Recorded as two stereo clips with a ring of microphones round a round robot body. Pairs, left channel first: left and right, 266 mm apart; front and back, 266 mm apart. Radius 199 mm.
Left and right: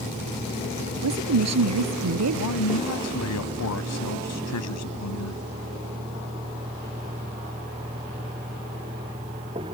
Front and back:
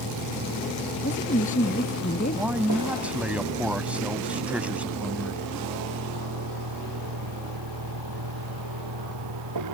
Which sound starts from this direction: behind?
A vehicle, at 0.0 s.